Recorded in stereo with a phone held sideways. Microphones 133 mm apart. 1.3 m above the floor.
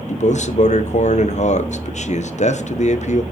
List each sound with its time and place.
0.1 s a man speaking: 60° left (ahead or behind), 1.0 m